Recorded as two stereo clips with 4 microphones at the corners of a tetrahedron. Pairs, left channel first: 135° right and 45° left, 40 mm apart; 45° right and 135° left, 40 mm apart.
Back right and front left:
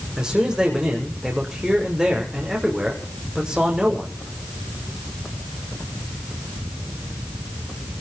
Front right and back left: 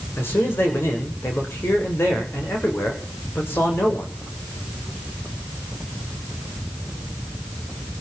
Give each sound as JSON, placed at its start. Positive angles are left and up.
{"t": 0.2, "sound": "a man speaking", "azimuth_deg": -25, "distance_m": 7.0}